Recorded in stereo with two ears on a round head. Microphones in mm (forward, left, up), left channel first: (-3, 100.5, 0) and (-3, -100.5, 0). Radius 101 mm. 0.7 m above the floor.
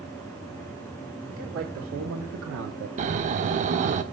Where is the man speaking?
65° right (ahead or behind), 2 m; by 2.9 s 50° right (ahead or behind), 1.3 m.